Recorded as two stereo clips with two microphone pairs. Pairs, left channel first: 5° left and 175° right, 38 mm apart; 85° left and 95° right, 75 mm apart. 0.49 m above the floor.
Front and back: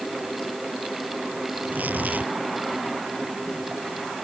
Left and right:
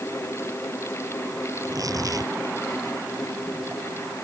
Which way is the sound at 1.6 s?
135° right.